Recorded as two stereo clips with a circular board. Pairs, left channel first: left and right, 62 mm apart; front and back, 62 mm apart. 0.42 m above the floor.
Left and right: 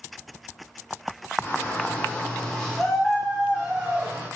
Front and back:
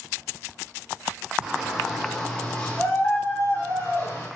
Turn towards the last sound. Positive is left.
turn(degrees=-30)